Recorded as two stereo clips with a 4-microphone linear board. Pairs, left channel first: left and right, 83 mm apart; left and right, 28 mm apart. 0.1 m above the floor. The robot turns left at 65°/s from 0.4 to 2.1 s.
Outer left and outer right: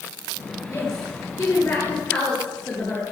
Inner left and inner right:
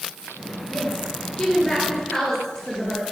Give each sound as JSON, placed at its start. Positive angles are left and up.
{"t": 0.7, "sound": "a woman speaking", "azimuth_deg": 115, "distance_m": 2.0}